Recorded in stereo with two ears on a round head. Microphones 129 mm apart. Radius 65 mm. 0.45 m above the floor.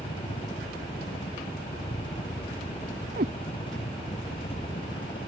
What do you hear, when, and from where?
0.0 s a helicopter: 35° left (ahead or behind)
3.2 s a cat meowing: 65° right (ahead or behind)